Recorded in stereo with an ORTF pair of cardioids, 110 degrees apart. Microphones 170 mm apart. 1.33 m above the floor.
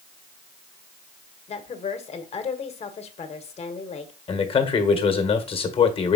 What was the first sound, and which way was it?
A woman speaking, 40° left.